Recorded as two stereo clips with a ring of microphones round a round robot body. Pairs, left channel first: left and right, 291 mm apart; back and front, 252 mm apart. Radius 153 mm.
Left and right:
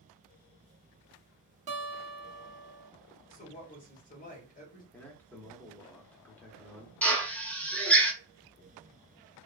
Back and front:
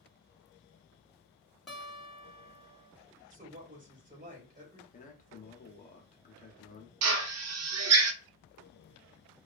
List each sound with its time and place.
1.7 s a guitar: 90° right, 1.3 m
3.3 s a woman speaking: 40° left, 1.6 m
4.9 s a man speaking: 170° left, 0.9 m
7.0 s a drill: 5° left, 0.6 m